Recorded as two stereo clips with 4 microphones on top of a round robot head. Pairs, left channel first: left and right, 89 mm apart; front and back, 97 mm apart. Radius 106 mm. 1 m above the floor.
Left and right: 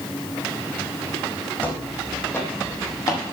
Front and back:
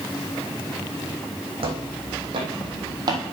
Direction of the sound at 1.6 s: 160° left.